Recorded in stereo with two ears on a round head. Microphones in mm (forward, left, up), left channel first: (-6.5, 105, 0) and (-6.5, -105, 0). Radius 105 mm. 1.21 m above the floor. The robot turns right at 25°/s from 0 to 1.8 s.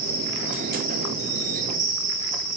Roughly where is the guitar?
I don't hear a guitar.